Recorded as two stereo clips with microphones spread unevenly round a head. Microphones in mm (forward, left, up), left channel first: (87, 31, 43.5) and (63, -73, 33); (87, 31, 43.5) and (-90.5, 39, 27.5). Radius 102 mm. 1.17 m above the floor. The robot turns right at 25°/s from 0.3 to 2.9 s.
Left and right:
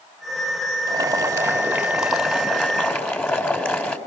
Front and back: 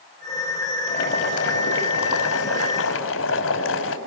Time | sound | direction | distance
0.9 | boiling | 45° right | 5 m